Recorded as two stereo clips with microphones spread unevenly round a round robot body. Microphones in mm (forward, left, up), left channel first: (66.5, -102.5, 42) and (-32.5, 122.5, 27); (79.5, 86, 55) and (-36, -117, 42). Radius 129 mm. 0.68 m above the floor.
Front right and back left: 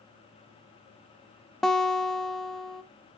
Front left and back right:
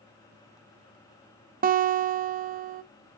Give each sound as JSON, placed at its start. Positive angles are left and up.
{"t": 1.6, "sound": "a guitar", "azimuth_deg": -155, "distance_m": 0.5}